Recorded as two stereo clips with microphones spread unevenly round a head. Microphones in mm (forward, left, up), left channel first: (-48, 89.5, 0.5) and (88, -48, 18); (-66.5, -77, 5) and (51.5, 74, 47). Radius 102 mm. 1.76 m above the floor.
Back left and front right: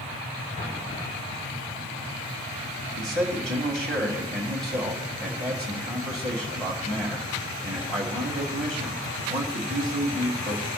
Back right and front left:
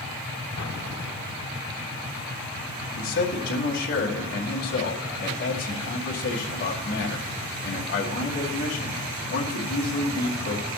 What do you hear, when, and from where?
0.6 s an explosion: 160° right, 1.6 m
3.0 s a man speaking: 140° right, 2.5 m